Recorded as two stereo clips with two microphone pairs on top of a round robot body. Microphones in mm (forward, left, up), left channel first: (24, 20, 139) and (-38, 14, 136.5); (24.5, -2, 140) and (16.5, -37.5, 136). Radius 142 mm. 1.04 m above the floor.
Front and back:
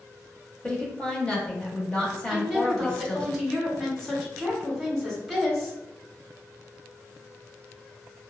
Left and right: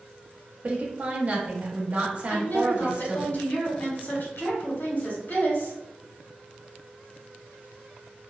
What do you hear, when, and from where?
0.6 s a woman speaking: 60° right, 1.0 m
2.3 s a woman speaking: 90° left, 1.5 m